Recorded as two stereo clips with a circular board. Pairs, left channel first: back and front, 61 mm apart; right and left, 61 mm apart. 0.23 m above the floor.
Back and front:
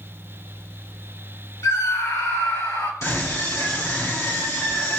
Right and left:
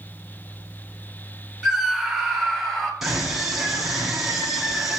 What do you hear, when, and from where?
1.6 s a scream: 175° left, 2.5 m; by 2.9 s straight behind, 3.5 m
3.0 s a scream: 170° left, 2.5 m